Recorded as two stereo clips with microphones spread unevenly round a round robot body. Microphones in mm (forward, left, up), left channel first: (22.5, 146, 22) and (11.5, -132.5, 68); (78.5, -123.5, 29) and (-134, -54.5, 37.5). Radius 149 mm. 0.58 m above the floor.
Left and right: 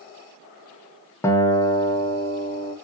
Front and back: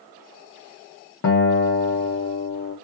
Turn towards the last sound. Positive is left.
turn(degrees=15)